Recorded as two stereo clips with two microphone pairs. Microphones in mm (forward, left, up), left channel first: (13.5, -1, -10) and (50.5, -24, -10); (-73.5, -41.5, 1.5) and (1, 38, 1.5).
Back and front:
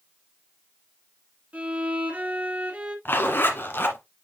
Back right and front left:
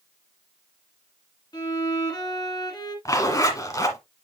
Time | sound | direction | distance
1.5 | a violin | 85° right | 2 m
3.0 | a zipper | 170° left | 1.6 m